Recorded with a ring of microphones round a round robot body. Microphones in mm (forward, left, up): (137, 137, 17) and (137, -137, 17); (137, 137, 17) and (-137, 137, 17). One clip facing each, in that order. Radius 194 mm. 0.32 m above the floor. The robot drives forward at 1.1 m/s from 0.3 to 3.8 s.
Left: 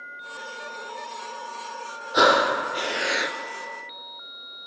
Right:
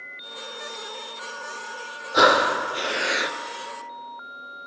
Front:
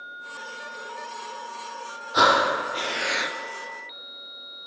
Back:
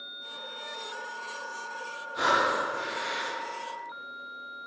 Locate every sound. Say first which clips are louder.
2.1 s breathing: even, front 6 dB; straight ahead, 2 m